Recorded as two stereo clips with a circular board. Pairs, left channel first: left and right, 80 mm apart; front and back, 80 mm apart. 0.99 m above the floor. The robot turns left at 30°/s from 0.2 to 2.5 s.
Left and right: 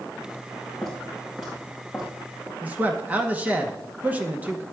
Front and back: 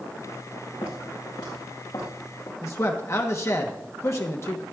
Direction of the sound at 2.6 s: 30° right.